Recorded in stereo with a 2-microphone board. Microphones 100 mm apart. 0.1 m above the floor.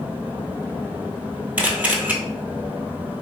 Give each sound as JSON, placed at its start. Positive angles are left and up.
{"t": 1.6, "sound": "a camera shutter", "side_deg": -15, "distance_m": 0.8}